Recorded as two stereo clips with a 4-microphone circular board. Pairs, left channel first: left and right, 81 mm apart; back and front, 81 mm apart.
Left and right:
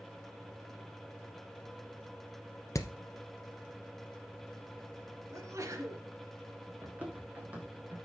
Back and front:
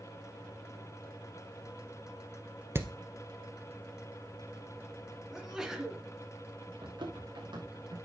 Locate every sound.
2.8 s hammering: 50° left, 1.1 m
5.3 s a sneeze: 80° right, 2 m
6.8 s running footsteps: 20° right, 3.5 m